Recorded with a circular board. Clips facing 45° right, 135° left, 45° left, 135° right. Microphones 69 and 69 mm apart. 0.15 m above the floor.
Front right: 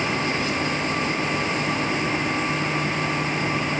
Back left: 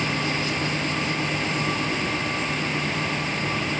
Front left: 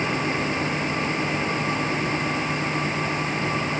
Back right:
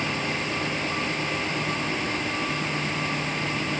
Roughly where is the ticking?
No ticking in this recording.